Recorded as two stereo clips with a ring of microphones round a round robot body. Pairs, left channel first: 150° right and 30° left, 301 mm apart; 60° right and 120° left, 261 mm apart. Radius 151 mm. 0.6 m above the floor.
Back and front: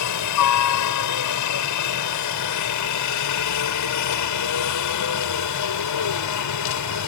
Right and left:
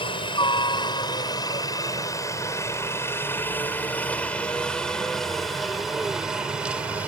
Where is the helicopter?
130° right; by 7.1 s 155° right.